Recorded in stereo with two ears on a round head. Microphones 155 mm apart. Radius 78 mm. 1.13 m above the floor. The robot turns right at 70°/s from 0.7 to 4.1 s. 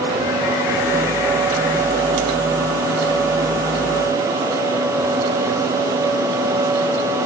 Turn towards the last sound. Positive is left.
No sound to turn to.